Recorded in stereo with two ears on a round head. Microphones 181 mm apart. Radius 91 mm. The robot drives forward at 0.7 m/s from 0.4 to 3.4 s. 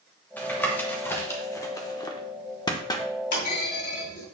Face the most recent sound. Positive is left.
turn(degrees=65)  # may be behind; listen again after turning